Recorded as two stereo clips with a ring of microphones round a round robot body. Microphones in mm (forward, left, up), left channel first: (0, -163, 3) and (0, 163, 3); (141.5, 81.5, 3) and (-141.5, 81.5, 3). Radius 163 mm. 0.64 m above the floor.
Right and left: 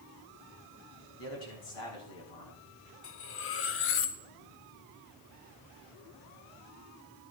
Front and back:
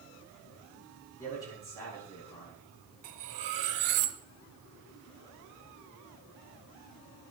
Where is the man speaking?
80° right, 5.5 m.